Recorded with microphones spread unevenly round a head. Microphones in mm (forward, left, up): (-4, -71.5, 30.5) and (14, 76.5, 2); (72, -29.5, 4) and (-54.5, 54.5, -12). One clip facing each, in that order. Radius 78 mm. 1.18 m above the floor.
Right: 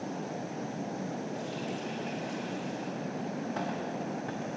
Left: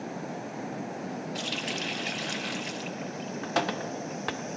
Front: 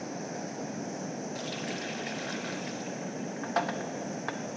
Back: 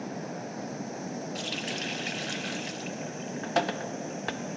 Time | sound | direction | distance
1.4 | a running tap | 90° left | 0.8 m